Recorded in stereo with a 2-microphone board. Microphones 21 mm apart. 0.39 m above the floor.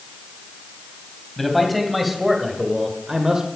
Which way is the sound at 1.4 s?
Centre (ahead or behind).